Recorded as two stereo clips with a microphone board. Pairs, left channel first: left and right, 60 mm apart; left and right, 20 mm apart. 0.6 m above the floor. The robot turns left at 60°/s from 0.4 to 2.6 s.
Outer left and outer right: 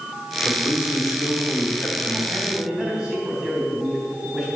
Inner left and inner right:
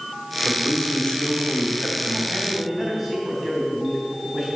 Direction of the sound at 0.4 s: 130° left.